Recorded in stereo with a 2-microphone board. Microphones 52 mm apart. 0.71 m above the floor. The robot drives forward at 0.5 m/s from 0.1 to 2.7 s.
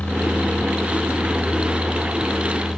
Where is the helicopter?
30° left (ahead or behind); by 2.8 s 5° left (ahead or behind).